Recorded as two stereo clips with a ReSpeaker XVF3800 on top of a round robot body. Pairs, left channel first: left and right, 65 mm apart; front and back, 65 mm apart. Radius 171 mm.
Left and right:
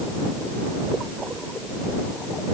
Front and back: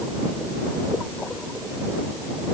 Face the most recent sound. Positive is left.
No sound to turn to.